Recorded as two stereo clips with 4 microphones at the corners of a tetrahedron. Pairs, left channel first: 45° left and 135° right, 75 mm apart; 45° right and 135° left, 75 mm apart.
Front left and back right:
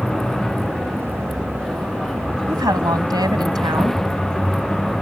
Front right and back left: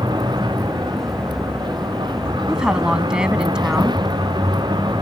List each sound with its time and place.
0.0 s a vehicle: 130° left
2.5 s a woman speaking: 145° right